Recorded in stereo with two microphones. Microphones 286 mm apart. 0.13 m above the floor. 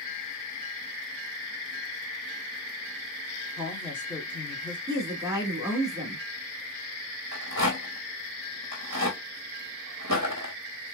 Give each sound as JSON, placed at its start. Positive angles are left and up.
{"t": 3.6, "sound": "a woman speaking", "side_deg": 5, "distance_m": 1.8}
{"t": 4.9, "sound": "a woman speaking", "side_deg": -10, "distance_m": 1.5}
{"t": 7.3, "sound": "a rattle", "side_deg": -70, "distance_m": 1.1}